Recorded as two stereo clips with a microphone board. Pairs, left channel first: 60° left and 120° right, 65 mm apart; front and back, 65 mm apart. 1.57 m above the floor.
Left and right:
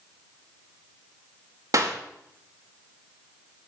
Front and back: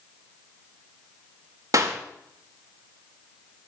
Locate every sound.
1.7 s a clap: 150° right, 2.5 m